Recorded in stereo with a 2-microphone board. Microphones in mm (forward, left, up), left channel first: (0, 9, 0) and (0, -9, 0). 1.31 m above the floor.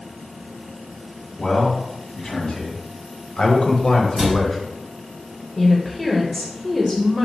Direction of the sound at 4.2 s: 55° right (ahead or behind).